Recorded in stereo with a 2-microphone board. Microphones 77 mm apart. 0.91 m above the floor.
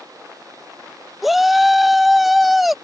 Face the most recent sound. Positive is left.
turn(degrees=0)  # may be behind; listen again after turning